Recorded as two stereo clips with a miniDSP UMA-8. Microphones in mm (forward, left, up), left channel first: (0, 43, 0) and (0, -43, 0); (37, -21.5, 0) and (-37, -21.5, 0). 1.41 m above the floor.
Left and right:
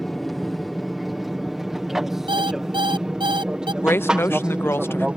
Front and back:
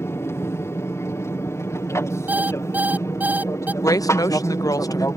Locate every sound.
0.0 s an aircraft: straight ahead; by 5.2 s 15° right
2.3 s an alarm clock: 110° right
3.8 s a woman speaking: 30° left